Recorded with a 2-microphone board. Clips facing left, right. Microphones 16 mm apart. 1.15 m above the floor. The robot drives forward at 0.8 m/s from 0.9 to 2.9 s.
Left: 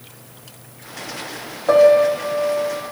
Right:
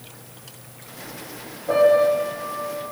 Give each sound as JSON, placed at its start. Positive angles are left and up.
{"t": 1.7, "sound": "a piano", "side_deg": 80, "distance_m": 8.0}